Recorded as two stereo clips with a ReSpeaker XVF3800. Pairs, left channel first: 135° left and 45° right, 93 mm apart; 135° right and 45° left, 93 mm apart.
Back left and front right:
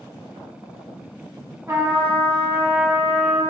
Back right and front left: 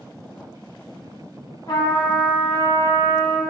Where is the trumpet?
105° right, 0.9 m.